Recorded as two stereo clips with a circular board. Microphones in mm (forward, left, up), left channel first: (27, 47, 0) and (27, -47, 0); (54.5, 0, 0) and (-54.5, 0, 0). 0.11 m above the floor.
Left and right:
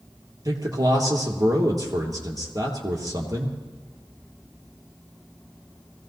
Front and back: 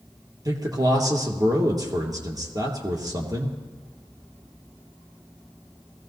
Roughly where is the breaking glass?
No breaking glass in this recording.